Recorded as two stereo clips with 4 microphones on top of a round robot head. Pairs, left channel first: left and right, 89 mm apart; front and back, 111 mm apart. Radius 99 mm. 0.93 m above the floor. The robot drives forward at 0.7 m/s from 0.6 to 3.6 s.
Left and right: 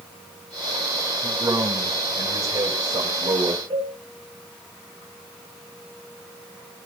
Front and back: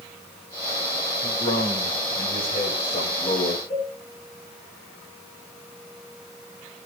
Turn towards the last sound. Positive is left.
turn(degrees=-50)